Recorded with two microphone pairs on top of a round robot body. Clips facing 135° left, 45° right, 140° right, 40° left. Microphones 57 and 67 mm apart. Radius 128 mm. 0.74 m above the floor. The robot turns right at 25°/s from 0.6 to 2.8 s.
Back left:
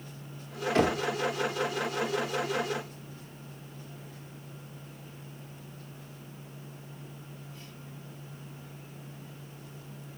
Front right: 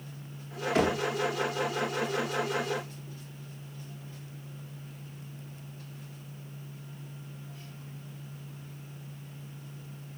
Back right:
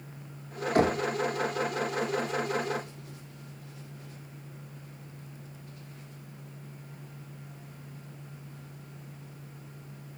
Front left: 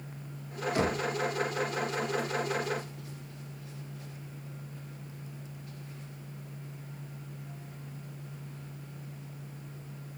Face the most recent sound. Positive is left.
turn(degrees=-80)